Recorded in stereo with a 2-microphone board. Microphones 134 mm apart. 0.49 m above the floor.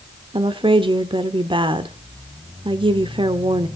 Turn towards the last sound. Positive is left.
turn(degrees=-40)  # may be behind; listen again after turning